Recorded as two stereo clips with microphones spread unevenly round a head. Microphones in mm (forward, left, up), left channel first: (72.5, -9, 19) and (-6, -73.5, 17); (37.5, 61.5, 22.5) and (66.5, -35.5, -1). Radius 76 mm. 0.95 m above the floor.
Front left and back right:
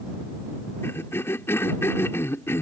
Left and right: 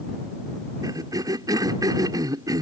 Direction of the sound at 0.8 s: 25° right.